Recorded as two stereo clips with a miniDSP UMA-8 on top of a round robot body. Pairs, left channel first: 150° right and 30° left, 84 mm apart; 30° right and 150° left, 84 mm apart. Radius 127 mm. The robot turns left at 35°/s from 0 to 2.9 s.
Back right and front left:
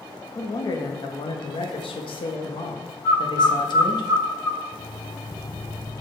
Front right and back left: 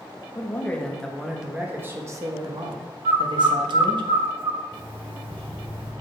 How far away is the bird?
About 3 m.